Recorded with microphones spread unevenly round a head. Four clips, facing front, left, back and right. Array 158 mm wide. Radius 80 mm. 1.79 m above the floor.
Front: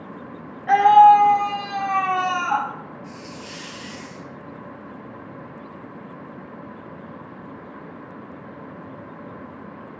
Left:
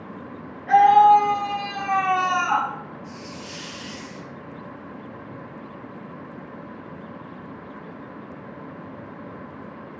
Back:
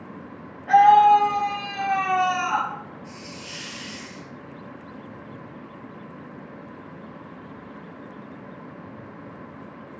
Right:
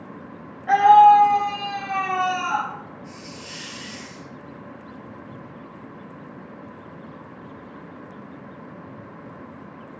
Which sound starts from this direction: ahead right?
A scream, at 0.7 s.